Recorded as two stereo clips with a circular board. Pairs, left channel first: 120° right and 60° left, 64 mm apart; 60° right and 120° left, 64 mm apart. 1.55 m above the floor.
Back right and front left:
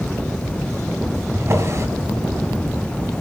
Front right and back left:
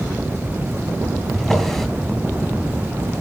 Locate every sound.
1.3 s a drawer: 25° left, 2.5 m